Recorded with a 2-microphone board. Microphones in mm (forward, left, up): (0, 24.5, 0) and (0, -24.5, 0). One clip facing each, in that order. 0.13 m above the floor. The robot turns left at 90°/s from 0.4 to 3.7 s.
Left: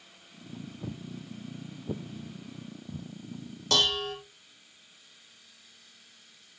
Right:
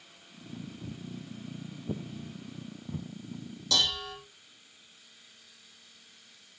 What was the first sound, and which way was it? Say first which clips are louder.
Footsteps: left 2 dB; 70° left (ahead or behind).